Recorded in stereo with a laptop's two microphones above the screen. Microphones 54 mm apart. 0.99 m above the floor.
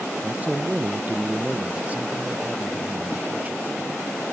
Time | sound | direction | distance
0.2 | a man speaking | 30° right (ahead or behind) | ?